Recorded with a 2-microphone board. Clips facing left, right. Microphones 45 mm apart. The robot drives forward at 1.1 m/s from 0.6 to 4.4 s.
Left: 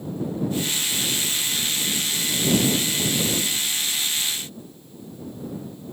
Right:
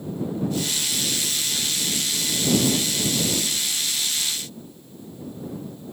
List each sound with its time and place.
Only background noise.